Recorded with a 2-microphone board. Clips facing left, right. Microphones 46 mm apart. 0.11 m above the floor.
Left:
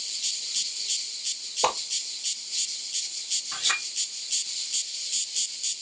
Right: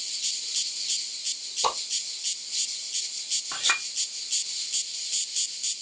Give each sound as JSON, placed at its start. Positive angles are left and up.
{"t": 1.6, "sound": "a whoosh", "side_deg": 45, "distance_m": 0.8}
{"t": 3.5, "sound": "a clink", "side_deg": -30, "distance_m": 2.0}